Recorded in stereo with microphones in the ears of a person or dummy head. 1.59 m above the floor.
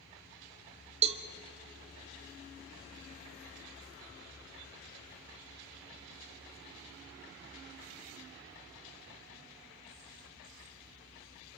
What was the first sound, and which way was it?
A cowbell, 35° right (ahead or behind).